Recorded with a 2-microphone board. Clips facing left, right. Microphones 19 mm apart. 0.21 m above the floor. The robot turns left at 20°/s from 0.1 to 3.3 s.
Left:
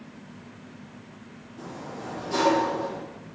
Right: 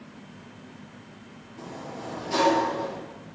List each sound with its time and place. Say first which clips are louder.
1.6 s a sliding door: even; 5° right (ahead or behind), 5 m; by 3.0 s 35° right (ahead or behind), 5 m